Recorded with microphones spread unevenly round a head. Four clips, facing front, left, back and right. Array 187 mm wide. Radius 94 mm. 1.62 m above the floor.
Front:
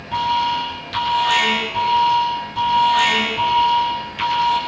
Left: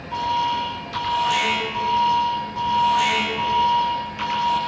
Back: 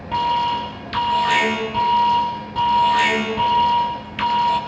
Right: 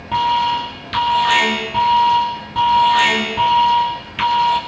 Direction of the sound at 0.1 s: 130° right.